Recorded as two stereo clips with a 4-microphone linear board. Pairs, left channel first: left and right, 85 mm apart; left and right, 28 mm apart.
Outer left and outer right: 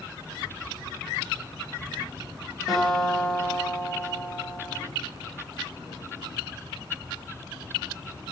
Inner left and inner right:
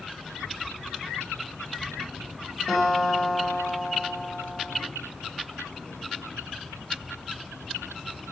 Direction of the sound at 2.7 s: Centre (ahead or behind).